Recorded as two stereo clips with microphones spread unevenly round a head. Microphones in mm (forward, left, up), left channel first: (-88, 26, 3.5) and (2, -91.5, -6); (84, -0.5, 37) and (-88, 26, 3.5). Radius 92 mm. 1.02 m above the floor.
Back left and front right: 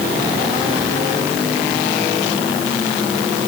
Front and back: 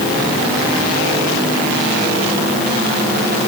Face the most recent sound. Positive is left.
No sound to turn to.